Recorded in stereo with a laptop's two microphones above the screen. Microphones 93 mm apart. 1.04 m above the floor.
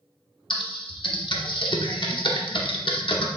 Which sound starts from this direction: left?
Typing on a keyboard, at 0.5 s.